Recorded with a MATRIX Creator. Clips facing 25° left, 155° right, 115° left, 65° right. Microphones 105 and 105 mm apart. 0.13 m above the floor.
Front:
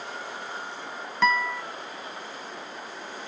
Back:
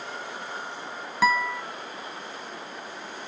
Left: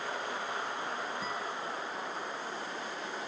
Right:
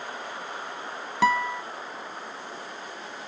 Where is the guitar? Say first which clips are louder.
Back 1 dB, right 13 dB; 70° right.